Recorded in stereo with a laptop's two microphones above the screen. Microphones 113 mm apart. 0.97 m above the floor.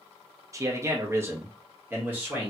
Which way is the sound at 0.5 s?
30° right (ahead or behind).